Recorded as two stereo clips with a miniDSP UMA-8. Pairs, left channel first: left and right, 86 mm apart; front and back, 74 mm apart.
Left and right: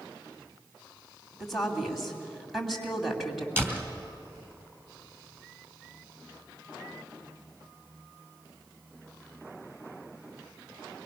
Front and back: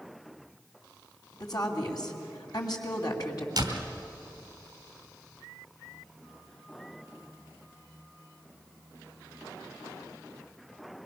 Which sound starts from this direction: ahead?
A woman speaking, at 1.4 s.